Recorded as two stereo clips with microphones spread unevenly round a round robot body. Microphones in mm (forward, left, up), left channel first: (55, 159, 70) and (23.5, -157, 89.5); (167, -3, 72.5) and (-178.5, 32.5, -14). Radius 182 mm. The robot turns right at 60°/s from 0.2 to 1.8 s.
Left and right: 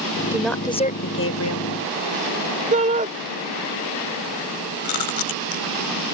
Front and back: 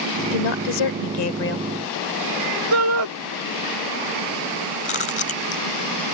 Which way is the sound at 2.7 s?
165° right.